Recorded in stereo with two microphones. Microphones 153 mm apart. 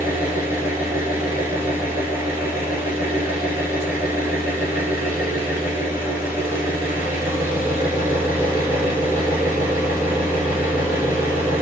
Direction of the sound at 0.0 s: 15° right (ahead or behind).